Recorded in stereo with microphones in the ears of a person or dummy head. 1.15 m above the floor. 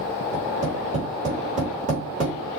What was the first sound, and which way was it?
Tapping, 40° right (ahead or behind).